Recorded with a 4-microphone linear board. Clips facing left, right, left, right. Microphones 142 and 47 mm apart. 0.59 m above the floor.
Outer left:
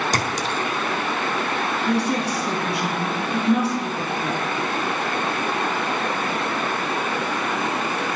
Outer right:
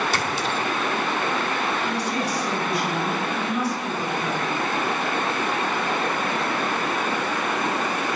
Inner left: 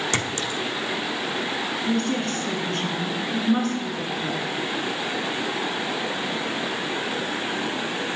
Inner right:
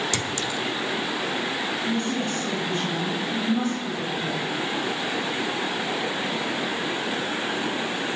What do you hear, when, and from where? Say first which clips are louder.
0.1 s a clink: outer left 1 dB, inner left 1 dB; 40° left (ahead or behind), 0.8 m
1.9 s a woman speaking: outer left 4 dB, inner left 4 dB; 70° left (ahead or behind), 7 m